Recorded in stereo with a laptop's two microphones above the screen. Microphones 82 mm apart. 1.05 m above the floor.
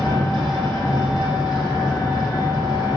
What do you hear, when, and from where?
0.0 s an engine running: 60° left (ahead or behind), 1.7 m